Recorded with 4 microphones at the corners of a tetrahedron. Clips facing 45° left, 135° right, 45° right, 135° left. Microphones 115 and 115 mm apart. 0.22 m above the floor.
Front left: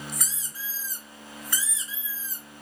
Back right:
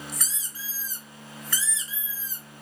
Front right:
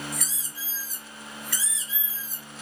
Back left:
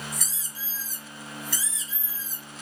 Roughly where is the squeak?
Ahead right.